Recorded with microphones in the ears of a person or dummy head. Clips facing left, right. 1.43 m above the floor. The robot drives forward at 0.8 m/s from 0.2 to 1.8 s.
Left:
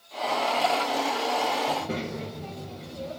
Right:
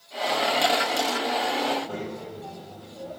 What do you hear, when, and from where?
1.7 s a child speaking: 25° left (ahead or behind), 6.5 m